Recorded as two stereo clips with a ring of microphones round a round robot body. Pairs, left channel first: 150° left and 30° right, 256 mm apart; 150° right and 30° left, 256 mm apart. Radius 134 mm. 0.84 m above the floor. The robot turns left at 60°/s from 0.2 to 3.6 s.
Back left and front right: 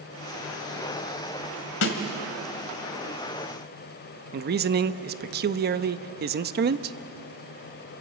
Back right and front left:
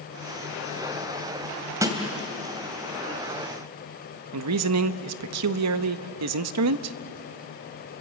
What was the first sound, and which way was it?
A snare drum, 110° left.